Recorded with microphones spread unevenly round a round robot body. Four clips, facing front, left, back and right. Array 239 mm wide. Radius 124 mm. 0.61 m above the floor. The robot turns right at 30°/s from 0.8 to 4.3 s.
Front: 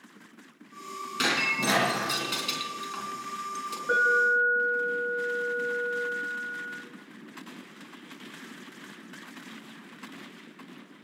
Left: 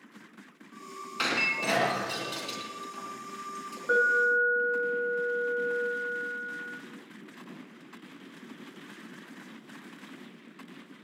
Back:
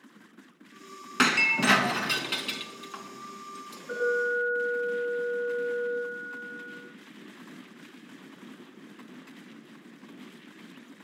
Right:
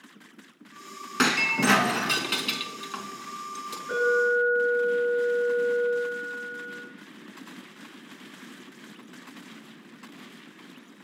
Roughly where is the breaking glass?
Behind right.